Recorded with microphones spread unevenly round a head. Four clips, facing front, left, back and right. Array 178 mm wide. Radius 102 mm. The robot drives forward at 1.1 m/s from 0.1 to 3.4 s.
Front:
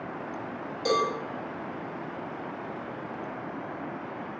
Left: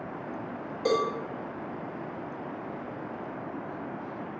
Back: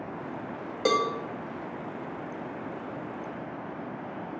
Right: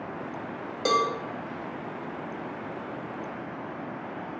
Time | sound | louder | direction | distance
0.8 | a cowbell | right 2 dB, back 1 dB | 175° right | 1.2 m